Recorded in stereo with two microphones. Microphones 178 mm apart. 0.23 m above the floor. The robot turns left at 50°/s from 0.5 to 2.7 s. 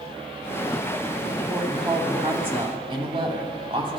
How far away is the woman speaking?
About 1.1 m.